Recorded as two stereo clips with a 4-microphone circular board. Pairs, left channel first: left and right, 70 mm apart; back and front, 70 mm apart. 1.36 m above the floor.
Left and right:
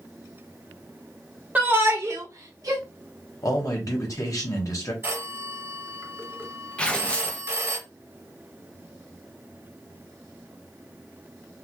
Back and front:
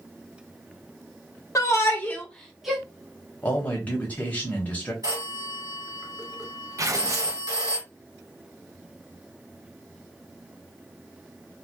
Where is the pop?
I don't hear a pop.